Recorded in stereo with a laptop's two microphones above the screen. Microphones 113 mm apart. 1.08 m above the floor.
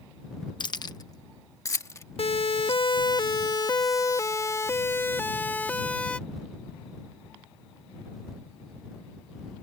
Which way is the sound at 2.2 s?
55° left (ahead or behind).